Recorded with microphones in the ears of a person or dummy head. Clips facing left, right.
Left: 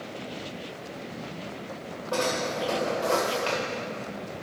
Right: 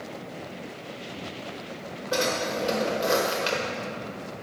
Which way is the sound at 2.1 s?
25° right (ahead or behind).